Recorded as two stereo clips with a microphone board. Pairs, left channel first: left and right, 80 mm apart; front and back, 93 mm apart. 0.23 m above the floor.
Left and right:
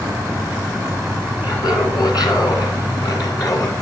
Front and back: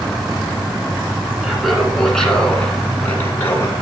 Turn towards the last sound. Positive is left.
turn(degrees=55)